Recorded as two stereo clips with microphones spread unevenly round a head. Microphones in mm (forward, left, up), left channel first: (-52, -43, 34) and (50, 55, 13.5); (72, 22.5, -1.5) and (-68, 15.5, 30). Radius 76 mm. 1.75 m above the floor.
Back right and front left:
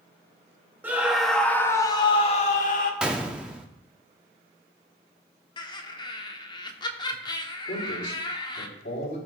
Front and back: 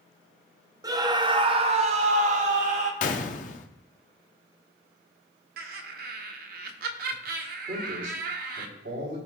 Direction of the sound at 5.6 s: 165° left.